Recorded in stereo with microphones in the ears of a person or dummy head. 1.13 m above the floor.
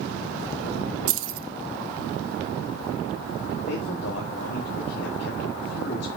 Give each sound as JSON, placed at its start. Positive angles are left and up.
{"t": 1.1, "sound": "keys jangling", "side_deg": -80, "distance_m": 0.7}
{"t": 3.7, "sound": "a man speaking", "side_deg": 70, "distance_m": 1.4}